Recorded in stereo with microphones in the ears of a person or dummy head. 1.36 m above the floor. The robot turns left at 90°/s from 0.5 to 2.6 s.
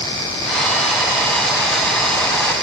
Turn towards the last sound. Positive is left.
No sound to turn to.